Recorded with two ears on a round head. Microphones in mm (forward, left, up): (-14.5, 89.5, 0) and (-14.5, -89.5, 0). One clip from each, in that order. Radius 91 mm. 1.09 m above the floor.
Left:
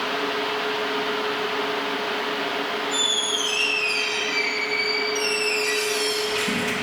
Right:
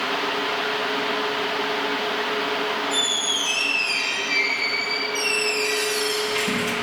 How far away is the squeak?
About 0.7 m.